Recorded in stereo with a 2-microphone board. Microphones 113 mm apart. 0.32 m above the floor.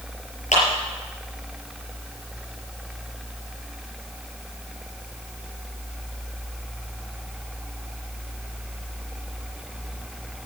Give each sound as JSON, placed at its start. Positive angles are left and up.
{"t": 0.5, "sound": "a clap", "side_deg": 80, "distance_m": 5.5}